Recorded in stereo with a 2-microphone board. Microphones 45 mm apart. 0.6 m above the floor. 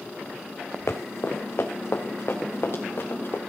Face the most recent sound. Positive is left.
turn(degrees=55)  # may be behind; listen again after turning